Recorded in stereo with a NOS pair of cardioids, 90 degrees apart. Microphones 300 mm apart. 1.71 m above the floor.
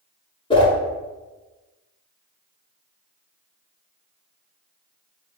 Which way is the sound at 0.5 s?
15° left.